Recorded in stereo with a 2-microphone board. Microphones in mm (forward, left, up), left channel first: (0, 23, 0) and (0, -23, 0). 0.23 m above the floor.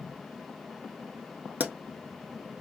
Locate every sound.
1.6 s a pop: 40° right (ahead or behind), 0.5 m